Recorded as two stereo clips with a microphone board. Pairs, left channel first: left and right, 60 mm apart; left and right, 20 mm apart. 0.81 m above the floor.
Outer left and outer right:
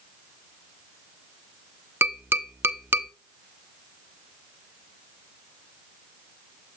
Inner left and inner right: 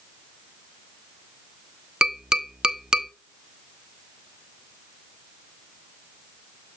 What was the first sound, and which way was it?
Tapping, 40° right (ahead or behind).